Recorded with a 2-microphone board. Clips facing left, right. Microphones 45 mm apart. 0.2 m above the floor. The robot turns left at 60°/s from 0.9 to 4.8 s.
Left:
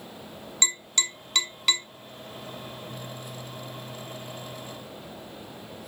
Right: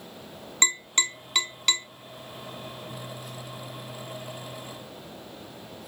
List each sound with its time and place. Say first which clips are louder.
0.6 s tapping: right 3 dB; 30° right (ahead or behind), 0.7 m; by 1.9 s 10° left (ahead or behind), 0.7 m